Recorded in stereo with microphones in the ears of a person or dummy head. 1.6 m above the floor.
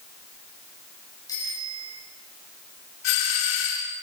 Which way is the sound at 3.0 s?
70° left (ahead or behind).